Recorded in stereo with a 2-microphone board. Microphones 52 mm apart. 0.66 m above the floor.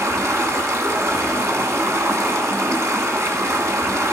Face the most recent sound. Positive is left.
turn(degrees=-65)  # may be behind; listen again after turning